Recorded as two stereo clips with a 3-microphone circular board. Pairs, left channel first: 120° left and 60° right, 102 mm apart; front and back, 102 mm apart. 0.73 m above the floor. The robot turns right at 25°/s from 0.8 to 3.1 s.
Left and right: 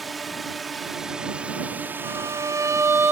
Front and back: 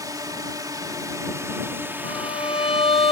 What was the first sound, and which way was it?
A drone, 150° right.